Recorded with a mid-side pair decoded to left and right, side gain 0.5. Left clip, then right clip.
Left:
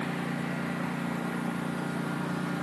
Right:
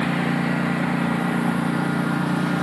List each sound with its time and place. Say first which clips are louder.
0.0 s a lawn mower: right 10 dB; 60° right; by 2.6 s 55° right